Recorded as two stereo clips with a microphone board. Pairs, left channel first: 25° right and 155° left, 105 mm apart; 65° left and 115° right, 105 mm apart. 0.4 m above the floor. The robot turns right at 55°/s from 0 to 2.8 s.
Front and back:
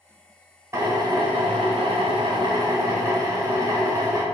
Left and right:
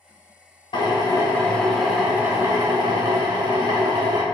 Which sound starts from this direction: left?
A drill, at 0.7 s.